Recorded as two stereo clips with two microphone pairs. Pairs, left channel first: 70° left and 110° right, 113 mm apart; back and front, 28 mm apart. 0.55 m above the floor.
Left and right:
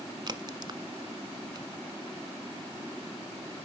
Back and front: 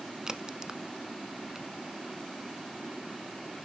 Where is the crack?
65° right, 0.9 m.